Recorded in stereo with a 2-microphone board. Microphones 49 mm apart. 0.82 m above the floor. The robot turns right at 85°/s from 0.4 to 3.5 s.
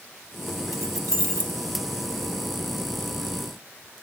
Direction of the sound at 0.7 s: 75° right (ahead or behind).